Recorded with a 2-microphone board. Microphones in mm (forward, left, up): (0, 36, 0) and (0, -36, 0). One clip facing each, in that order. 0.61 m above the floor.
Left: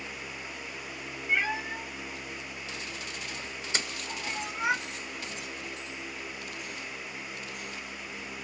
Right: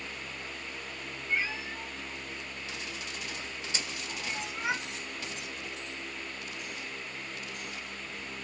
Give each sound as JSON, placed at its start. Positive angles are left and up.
{"t": 1.3, "sound": "a cat meowing", "side_deg": 65, "distance_m": 1.8}
{"t": 3.7, "sound": "a splash", "side_deg": 60, "distance_m": 1.1}